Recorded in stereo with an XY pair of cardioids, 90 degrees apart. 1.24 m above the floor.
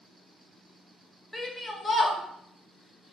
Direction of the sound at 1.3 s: 15° left.